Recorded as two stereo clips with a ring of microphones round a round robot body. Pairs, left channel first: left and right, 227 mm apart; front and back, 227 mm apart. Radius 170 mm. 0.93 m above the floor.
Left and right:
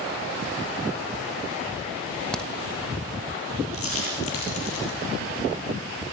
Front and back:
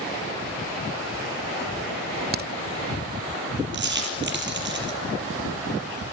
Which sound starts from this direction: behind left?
A dropped coin, at 3.7 s.